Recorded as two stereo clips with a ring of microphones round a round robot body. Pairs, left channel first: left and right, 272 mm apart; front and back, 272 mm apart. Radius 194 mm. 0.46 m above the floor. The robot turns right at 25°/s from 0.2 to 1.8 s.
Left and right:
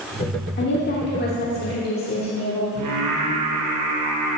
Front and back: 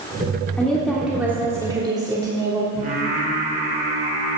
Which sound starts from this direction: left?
A woman speaking, at 0.6 s.